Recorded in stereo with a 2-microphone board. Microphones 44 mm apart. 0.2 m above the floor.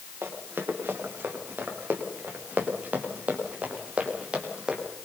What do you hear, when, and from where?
0.2 s running footsteps: 60° right (ahead or behind), 7 m; by 4.8 s 25° right (ahead or behind), 6.5 m